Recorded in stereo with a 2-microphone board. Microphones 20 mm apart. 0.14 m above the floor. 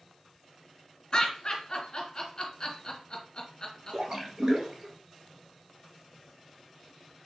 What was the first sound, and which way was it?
Laughter, 40° left (ahead or behind).